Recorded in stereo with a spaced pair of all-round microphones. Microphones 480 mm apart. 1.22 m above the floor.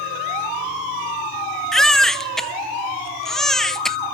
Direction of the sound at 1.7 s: Centre (ahead or behind).